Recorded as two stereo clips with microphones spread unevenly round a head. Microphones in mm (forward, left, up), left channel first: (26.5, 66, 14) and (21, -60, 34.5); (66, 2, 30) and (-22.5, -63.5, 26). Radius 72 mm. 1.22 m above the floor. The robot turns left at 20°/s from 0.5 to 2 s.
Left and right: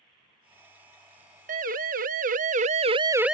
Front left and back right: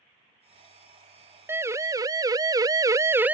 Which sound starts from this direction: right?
A siren, at 1.5 s.